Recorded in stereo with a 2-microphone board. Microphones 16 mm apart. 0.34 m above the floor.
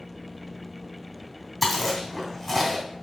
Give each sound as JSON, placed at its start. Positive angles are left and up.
{"t": 1.6, "sound": "chewing", "side_deg": 5, "distance_m": 2.5}